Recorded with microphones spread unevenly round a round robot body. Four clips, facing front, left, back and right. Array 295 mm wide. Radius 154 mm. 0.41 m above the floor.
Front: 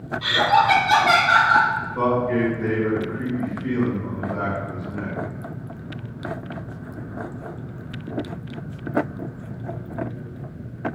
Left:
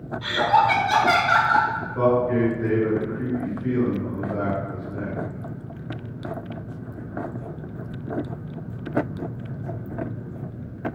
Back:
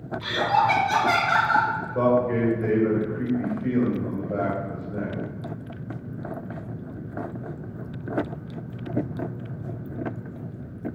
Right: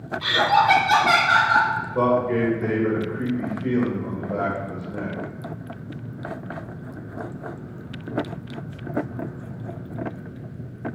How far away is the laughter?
About 0.9 m.